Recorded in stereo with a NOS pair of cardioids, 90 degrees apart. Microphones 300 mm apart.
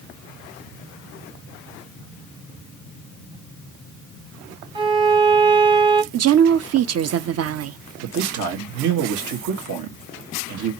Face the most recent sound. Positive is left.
turn(degrees=-70)